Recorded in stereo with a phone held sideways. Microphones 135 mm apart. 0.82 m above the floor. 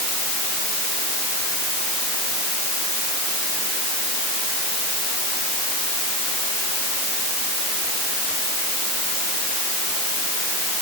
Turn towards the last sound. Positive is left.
No sound to turn to.